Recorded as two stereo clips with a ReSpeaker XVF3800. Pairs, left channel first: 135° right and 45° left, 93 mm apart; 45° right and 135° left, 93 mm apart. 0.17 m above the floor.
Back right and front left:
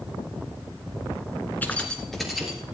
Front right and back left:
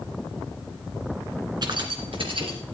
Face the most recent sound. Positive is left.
turn(degrees=125)